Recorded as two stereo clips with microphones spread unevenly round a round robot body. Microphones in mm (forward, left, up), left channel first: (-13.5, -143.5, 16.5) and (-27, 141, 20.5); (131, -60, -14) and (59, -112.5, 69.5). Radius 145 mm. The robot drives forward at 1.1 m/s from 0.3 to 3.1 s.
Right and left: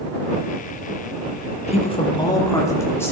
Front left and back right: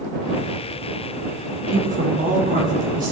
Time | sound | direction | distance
1.7 | a woman speaking | 145° right | 1.2 m